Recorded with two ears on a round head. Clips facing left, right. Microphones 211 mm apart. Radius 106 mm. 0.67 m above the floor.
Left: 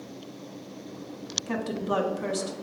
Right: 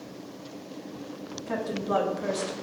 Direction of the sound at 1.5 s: 40° left (ahead or behind).